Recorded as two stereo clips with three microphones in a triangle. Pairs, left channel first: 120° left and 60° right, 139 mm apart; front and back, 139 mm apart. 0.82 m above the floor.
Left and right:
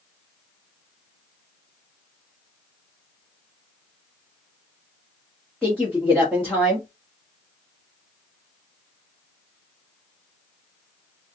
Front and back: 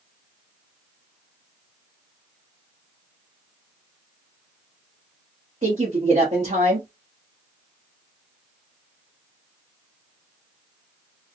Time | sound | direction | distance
5.6 | a woman speaking | 160° right | 1.4 m